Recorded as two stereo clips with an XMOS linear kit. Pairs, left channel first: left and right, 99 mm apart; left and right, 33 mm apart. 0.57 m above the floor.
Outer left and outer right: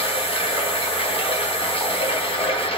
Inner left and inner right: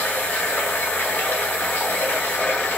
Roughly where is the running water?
Left.